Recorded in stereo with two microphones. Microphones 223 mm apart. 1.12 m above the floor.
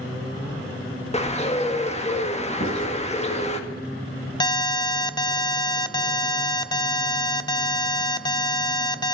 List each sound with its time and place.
1.1 s a bird: 30° left (ahead or behind), 1.5 m
2.6 s writing: 65° left (ahead or behind), 5 m
4.4 s an alarm: 20° left (ahead or behind), 0.6 m